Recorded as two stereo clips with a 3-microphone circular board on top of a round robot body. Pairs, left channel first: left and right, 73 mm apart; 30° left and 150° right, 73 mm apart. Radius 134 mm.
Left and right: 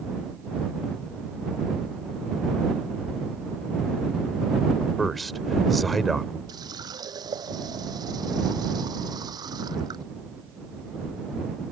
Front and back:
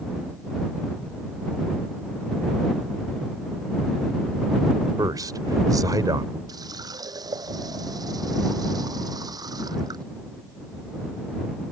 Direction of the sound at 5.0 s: Straight behind.